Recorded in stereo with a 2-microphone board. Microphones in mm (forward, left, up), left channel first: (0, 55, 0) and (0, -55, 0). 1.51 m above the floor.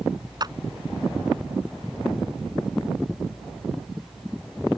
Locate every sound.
0.4 s a clap: 40° right (ahead or behind)